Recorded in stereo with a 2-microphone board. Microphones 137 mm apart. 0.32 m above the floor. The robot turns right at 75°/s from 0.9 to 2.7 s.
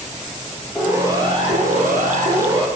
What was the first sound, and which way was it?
A siren, 5° right (ahead or behind).